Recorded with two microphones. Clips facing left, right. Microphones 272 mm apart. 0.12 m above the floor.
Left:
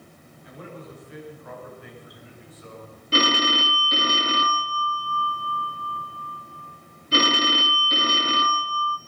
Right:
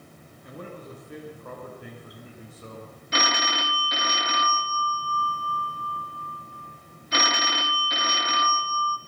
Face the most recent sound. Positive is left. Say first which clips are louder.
# left 7 dB
turn(degrees=35)  # may be behind; listen again after turning